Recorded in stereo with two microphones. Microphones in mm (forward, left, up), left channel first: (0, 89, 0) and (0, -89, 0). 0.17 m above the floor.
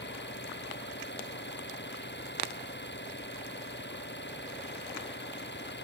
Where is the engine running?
85° left.